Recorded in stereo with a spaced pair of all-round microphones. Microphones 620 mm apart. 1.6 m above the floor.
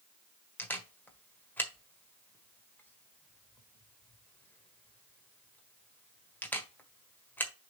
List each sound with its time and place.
0.6 s a camera shutter: 5° left (ahead or behind), 1.4 m